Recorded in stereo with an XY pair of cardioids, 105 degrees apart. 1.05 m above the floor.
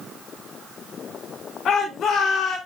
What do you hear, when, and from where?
1.6 s a shout: 60° left, 3.5 m